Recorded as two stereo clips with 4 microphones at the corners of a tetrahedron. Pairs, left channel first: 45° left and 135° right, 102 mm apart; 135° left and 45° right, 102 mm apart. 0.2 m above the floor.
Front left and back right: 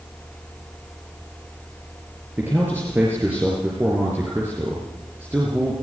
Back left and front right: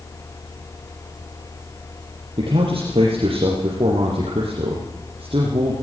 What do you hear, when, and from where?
2.4 s a man speaking: 65° right, 4.5 m